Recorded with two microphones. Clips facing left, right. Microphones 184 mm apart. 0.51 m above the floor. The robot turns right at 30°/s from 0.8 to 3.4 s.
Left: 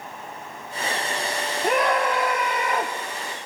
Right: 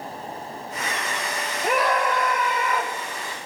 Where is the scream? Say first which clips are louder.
Left 1 dB; 10° right, 2 m; by 2.9 s 30° left, 2 m.